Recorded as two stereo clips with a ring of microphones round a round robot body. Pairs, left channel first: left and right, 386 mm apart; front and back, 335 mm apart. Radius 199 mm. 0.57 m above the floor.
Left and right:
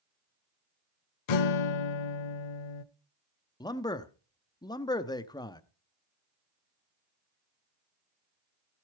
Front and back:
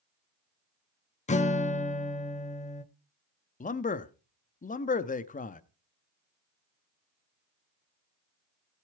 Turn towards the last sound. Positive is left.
turn(degrees=25)